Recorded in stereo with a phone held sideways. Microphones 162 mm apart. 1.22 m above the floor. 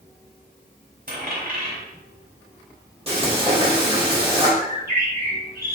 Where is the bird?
80° right, 3 m.